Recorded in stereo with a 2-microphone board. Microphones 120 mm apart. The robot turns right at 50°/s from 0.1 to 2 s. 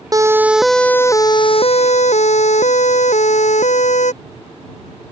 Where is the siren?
30° right (ahead or behind); by 4.1 s 80° left.